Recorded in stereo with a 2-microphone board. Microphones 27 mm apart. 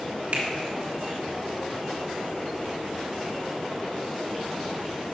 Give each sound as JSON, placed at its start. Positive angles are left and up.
{"t": 0.3, "sound": "a finger snap", "side_deg": -50, "distance_m": 1.7}